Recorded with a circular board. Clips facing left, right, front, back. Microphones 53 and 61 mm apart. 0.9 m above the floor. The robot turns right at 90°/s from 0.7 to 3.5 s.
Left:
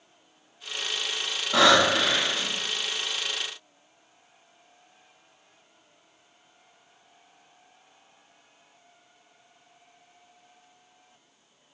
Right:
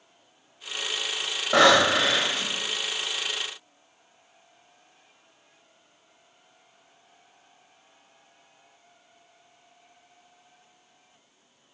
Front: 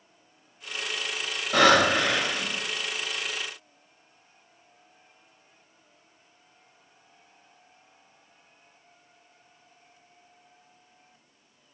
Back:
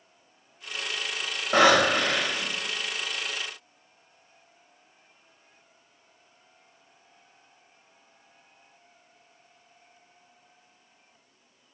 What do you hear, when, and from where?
1.5 s breathing: 125° right, 2.0 m; by 2.5 s 35° right, 2.0 m